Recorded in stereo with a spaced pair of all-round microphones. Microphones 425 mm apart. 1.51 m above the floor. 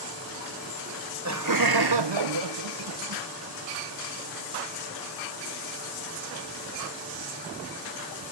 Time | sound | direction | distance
0.9 | laughter | 30° right (ahead or behind) | ?